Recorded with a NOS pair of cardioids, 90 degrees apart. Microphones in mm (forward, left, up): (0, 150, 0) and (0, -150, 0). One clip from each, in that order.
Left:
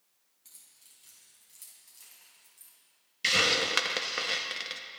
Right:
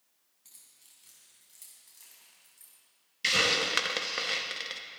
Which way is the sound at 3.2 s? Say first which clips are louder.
Left 1 dB; 5° left.